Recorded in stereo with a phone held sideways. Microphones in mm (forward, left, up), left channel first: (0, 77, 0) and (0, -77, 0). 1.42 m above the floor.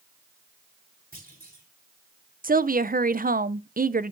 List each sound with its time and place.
1.1 s a clunk: 75° right (ahead or behind), 4 m
2.4 s a woman speaking: 65° right (ahead or behind), 0.6 m